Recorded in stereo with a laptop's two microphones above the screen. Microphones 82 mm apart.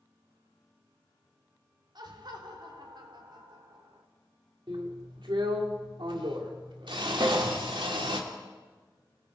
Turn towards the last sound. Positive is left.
turn(degrees=-60)  # may be behind; listen again after turning